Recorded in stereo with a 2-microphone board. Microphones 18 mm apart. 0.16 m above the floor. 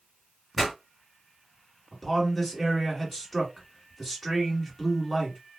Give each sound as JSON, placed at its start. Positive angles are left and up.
{"t": 0.6, "sound": "a pop", "side_deg": -5, "distance_m": 1.8}
{"t": 1.9, "sound": "a man speaking", "side_deg": 5, "distance_m": 1.4}